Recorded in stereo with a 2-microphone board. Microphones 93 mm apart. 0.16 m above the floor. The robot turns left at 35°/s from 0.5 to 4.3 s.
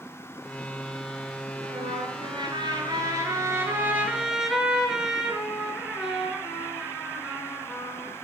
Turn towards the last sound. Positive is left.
turn(degrees=-175)